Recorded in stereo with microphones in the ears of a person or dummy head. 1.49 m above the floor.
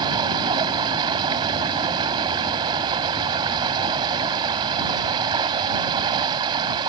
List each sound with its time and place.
0.0 s running water: 25° right (ahead or behind)